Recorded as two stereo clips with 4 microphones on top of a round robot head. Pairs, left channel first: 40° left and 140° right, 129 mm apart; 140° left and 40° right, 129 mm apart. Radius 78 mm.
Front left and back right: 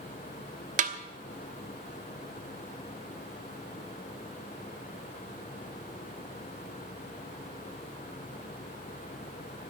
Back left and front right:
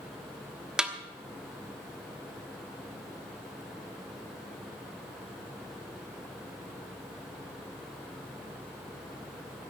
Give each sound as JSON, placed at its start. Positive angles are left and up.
{"t": 0.8, "sound": "a snare drum", "azimuth_deg": -125, "distance_m": 1.2}